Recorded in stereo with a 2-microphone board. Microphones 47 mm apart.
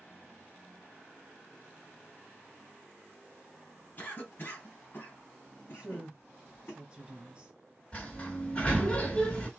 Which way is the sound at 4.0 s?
45° left (ahead or behind).